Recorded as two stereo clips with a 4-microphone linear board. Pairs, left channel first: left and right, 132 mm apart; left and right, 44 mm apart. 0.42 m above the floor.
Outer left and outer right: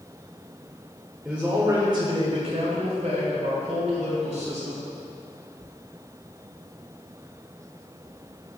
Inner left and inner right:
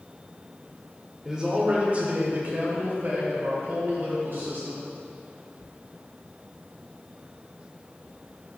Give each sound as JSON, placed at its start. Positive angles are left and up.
{"t": 1.2, "sound": "a man speaking", "side_deg": -5, "distance_m": 1.4}